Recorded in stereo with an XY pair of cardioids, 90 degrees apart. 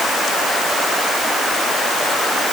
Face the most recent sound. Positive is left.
No sound to turn to.